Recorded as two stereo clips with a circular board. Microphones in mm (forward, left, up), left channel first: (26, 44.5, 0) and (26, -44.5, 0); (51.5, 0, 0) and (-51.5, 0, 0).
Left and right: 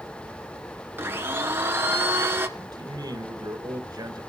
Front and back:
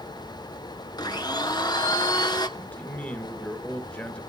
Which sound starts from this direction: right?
A man speaking, at 2.6 s.